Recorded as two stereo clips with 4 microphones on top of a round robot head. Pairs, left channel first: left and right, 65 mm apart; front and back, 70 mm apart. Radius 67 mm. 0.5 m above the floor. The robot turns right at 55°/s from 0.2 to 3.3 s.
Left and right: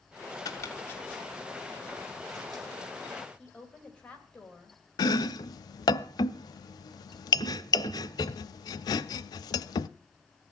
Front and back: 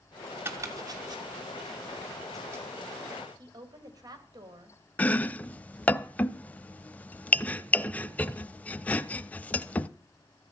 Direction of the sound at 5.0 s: 70° left.